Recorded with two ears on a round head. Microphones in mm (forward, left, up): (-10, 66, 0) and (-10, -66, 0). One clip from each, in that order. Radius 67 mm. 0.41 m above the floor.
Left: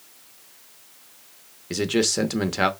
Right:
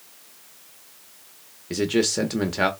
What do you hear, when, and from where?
1.7 s a man speaking: 15° left (ahead or behind), 0.8 m